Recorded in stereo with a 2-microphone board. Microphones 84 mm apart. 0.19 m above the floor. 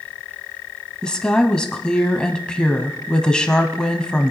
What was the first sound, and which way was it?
A woman speaking, 10° left (ahead or behind).